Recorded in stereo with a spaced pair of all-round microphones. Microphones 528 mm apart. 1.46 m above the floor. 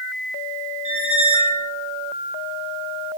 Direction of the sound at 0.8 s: 35° left (ahead or behind).